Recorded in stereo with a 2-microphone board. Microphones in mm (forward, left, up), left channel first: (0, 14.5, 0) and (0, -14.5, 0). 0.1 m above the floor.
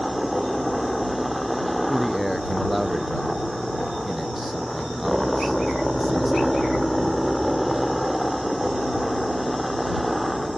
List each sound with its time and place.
0.0 s a helicopter: centre (ahead or behind)
1.9 s a man speaking: centre (ahead or behind)